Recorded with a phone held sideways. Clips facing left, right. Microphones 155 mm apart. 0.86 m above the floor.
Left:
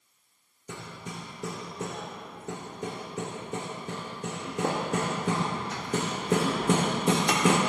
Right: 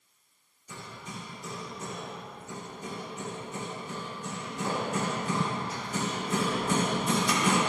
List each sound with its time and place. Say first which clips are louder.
0.7 s hammering: left 3 dB; 75° left (ahead or behind), 0.9 m